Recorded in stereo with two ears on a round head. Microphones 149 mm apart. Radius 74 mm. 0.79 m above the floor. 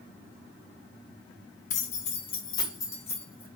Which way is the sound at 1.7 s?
45° left (ahead or behind).